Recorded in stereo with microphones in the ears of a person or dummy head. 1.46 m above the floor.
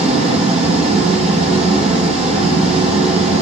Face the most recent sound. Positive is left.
turn(degrees=-45)  # may be behind; listen again after turning